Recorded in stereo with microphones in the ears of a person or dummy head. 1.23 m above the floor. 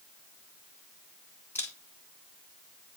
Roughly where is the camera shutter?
Centre.